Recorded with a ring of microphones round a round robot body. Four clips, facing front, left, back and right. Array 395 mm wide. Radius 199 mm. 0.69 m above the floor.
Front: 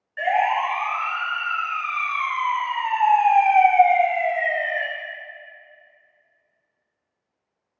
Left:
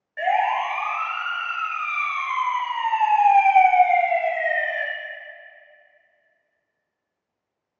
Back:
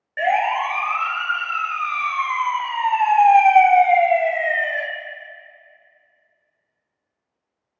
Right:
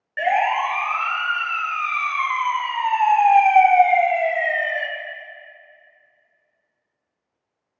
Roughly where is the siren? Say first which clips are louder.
Right 1 dB, back 1 dB; behind right.